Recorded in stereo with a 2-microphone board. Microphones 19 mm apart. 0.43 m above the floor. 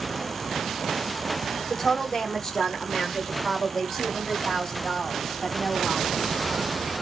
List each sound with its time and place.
1.7 s a woman speaking: 25° left (ahead or behind), 0.9 m; by 6.8 s 35° left (ahead or behind), 3 m